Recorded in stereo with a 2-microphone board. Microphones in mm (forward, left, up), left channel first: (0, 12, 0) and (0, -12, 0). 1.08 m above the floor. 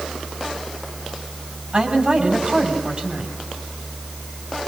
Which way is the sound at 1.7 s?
30° right (ahead or behind).